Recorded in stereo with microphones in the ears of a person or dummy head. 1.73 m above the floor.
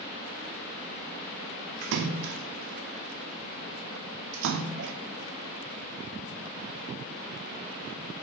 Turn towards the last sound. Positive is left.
turn(degrees=-65)  # may be behind; listen again after turning